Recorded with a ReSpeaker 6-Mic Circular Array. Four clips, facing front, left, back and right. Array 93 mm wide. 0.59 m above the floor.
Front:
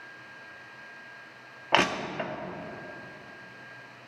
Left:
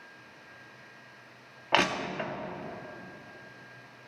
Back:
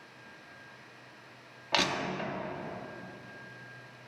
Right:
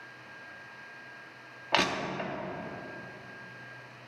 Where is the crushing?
20° left, 0.7 m.